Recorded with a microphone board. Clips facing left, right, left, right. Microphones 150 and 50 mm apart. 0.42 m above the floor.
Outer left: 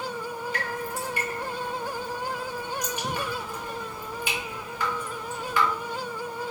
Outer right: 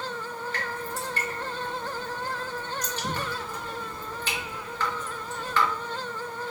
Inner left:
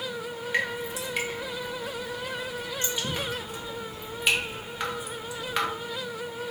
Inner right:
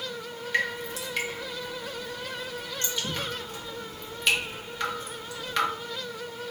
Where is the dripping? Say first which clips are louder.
Outer left 2 dB, inner right 1 dB; 10° left (ahead or behind), 1.2 m.